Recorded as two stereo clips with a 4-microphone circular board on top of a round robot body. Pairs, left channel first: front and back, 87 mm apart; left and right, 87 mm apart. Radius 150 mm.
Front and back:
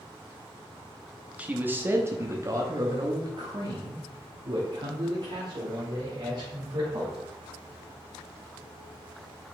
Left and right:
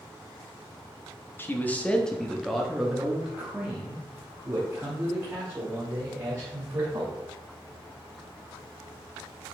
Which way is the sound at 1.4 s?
125° left.